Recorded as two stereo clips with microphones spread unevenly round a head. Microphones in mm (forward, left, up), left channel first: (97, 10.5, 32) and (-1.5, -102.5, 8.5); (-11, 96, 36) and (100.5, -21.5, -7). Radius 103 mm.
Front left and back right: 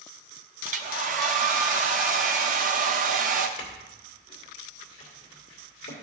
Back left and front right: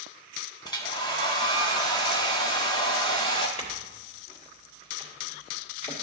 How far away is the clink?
About 2.0 m.